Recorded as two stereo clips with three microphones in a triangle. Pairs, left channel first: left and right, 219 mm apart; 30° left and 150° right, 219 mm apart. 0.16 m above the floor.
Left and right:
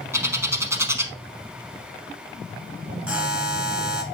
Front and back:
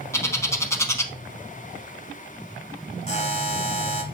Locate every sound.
0.1 s a bird: 30° right, 0.8 m
3.1 s a buzzer: 10° right, 1.2 m